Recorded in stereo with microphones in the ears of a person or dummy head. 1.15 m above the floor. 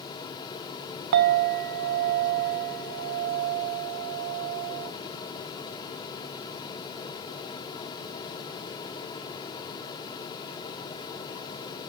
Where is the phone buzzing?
I don't hear a phone buzzing.